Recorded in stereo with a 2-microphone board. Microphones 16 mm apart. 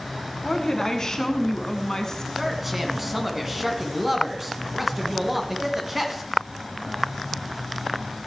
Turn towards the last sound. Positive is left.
turn(degrees=-15)  # may be behind; listen again after turning